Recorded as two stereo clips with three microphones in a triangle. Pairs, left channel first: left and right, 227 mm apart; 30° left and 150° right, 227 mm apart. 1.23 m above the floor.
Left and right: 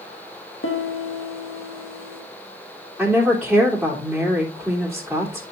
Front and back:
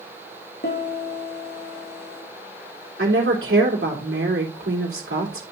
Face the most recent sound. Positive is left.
turn(degrees=180)